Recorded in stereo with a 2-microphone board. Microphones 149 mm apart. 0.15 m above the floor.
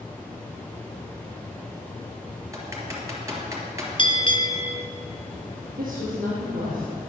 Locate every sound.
2.5 s typing on a keyboard: 20° right (ahead or behind), 3 m
4.0 s a bell: 35° left (ahead or behind), 1.2 m
5.8 s a woman speaking: 65° right (ahead or behind), 3.5 m